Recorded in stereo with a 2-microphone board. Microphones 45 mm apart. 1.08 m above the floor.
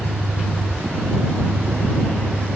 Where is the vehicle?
85° right; by 2.6 s 65° right (ahead or behind).